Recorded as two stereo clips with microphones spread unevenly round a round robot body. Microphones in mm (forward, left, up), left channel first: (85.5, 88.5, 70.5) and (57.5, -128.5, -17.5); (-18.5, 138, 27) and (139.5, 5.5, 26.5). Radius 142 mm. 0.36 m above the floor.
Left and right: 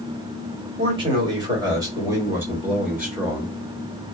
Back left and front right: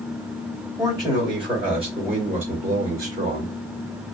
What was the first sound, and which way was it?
A man speaking, 105° right.